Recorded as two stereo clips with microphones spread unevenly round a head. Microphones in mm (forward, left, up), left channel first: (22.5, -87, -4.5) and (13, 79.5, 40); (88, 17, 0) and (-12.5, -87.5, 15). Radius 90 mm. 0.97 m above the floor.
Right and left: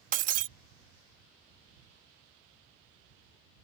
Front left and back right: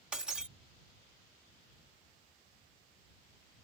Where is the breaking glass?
140° left.